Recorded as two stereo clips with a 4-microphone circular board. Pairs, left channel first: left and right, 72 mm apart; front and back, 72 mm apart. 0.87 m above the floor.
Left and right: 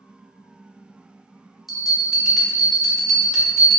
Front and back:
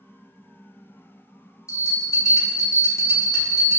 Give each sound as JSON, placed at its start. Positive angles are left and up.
{"t": 1.7, "sound": "a bell", "azimuth_deg": 0, "distance_m": 0.6}